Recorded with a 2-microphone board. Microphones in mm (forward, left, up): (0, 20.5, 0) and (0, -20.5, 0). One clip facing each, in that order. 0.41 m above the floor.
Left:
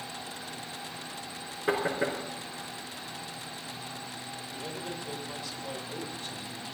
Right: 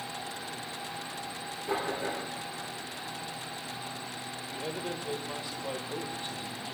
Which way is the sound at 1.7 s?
70° left (ahead or behind).